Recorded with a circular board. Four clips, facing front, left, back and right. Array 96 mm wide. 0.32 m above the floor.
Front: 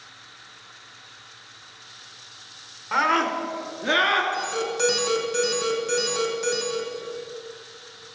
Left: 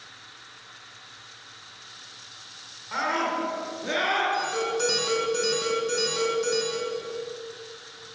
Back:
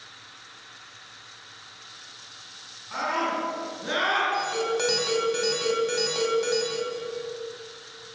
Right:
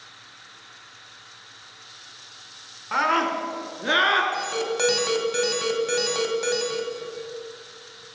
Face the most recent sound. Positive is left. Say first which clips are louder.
# even, back 1 dB
turn(degrees=-100)